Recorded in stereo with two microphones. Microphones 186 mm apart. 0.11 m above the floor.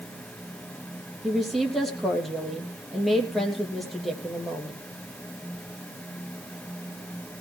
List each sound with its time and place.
1.2 s a woman speaking: centre (ahead or behind), 3 m